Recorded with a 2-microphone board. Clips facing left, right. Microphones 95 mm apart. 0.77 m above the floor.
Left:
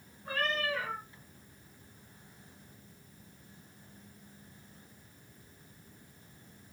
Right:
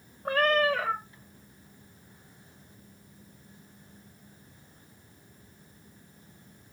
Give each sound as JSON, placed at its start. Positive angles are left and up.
{"t": 0.2, "sound": "a cat meowing", "side_deg": -65, "distance_m": 1.1}